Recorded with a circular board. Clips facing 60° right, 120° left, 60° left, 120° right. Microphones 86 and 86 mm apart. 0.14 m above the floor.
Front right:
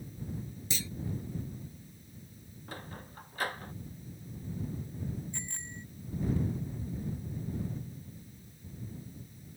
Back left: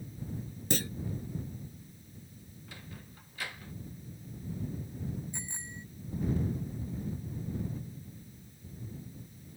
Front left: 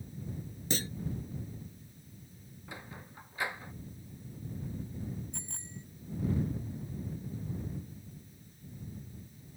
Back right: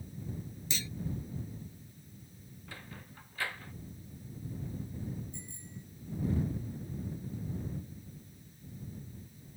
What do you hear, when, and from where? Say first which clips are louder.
0.7 s a clunk: back left 9 dB, front left 7 dB; 95° left
2.7 s a sliding door: front right 6 dB, front left 3 dB; 15° right
5.3 s a bicycle bell: even, front left 1 dB; 40° left